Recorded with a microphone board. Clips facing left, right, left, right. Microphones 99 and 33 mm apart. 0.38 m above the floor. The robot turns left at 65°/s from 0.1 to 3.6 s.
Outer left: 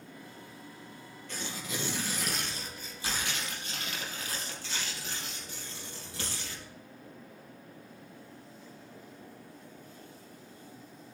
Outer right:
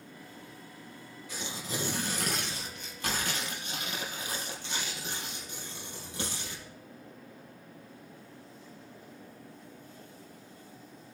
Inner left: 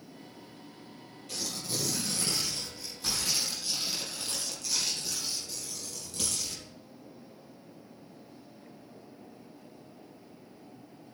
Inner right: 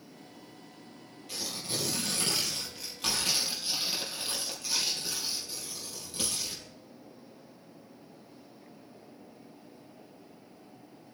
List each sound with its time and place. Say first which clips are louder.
1.3 s tearing paper: outer right 1 dB, even; 5° right, 3.5 m; by 6.7 s 155° right, 3.5 m